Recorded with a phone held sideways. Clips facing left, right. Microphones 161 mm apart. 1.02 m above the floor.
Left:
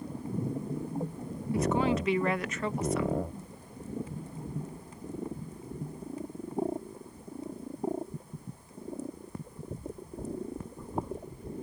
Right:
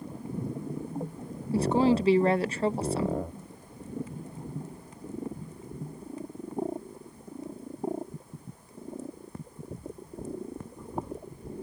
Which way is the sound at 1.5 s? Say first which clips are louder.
Right 4 dB; 35° right (ahead or behind).